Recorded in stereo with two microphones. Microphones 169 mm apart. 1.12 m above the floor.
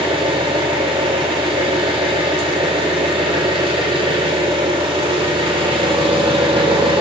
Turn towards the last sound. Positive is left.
turn(degrees=-30)  # may be behind; listen again after turning